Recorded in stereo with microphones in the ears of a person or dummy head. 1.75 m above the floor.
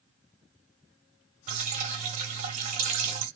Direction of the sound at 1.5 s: 40° right (ahead or behind).